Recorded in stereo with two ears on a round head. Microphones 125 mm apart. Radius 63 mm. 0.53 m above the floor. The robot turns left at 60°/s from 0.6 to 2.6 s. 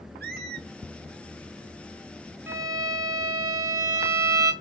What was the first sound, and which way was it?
A squeak, 80° right.